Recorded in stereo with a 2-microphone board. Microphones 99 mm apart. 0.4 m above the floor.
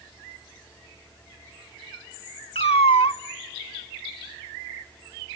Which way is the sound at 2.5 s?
80° left.